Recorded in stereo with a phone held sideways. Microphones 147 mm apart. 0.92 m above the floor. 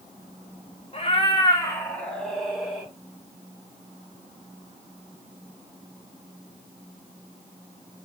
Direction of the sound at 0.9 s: 40° left (ahead or behind).